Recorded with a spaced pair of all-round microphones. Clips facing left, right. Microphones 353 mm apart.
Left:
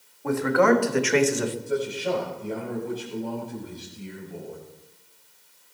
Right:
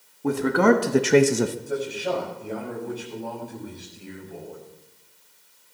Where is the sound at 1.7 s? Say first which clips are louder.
Left 1 dB; 5° left (ahead or behind), 7 m.